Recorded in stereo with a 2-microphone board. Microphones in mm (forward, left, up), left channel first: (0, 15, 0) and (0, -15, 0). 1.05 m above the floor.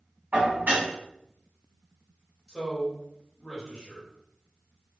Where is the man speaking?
20° left (ahead or behind), 1.6 m.